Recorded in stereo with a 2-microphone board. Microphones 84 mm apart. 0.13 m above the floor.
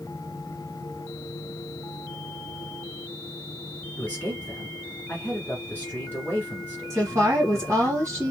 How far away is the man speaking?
About 2 m.